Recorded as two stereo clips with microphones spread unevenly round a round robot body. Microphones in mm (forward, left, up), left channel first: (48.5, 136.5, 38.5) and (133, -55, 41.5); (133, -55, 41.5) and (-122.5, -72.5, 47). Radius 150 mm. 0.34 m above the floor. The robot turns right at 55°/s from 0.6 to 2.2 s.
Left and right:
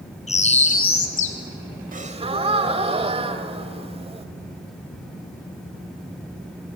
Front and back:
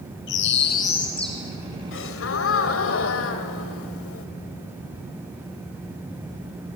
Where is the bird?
55° left, 2.5 m; by 1.4 s 100° left, 2.5 m.